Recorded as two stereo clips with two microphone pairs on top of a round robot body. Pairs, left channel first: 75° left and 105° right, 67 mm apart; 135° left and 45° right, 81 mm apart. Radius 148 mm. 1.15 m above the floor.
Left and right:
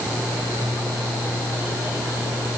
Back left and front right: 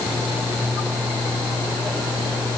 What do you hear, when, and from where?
Only background noise.